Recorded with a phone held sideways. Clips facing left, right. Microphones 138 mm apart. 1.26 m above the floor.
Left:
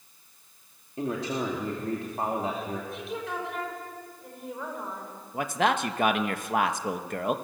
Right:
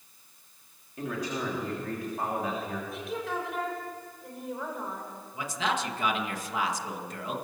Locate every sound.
1.0 s a man speaking: 30° left (ahead or behind), 3 m
2.9 s a woman speaking: centre (ahead or behind), 5 m
5.3 s a man speaking: 60° left (ahead or behind), 1.3 m